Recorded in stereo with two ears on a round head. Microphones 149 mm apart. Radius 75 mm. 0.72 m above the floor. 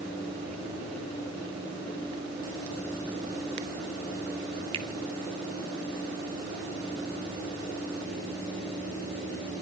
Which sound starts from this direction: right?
A finger snap, at 4.7 s.